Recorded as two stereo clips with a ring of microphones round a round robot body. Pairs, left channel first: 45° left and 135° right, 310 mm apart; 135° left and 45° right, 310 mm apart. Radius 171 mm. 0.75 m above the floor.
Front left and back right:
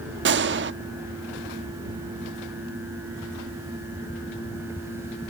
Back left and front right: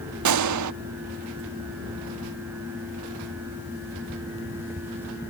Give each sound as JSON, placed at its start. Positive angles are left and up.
{"t": 0.2, "sound": "a gunshot", "azimuth_deg": -80}